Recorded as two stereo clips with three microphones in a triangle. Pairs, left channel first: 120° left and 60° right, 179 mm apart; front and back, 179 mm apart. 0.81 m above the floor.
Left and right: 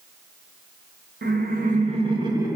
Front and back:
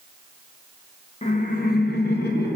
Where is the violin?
No violin in this recording.